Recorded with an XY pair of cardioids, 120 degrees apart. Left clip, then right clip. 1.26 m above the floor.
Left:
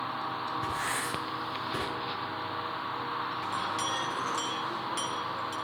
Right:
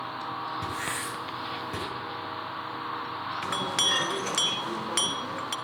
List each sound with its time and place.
0.6 s writing: 65° right, 7 m
3.4 s a clink: 65° right, 0.7 m